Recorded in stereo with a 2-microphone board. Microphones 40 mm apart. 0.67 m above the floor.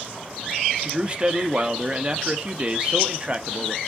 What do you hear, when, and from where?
0.8 s a man speaking: 30° right (ahead or behind), 0.8 m